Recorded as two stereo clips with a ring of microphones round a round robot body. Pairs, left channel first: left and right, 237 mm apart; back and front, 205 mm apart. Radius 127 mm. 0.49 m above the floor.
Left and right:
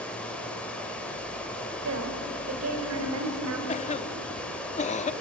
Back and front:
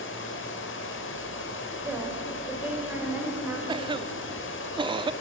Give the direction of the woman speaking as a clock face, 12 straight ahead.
3 o'clock.